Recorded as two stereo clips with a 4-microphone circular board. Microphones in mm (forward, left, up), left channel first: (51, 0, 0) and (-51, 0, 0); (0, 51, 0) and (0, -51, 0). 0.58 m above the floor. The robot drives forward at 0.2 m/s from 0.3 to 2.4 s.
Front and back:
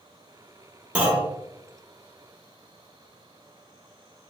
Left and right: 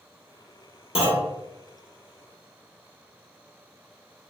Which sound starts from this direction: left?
A clunk, at 0.9 s.